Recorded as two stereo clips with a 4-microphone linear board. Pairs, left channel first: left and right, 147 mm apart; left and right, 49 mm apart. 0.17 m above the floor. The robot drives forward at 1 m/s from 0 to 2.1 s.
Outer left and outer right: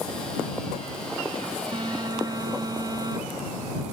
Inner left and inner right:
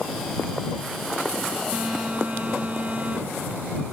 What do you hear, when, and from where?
1.7 s a phone buzzing: 35° right (ahead or behind), 0.6 m; by 3.8 s 30° right (ahead or behind), 0.8 m